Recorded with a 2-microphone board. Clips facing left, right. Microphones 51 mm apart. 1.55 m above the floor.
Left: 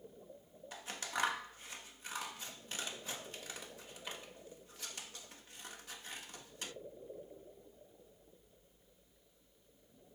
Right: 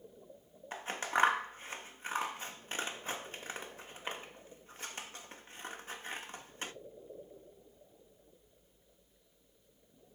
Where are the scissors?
35° right (ahead or behind), 1.3 m.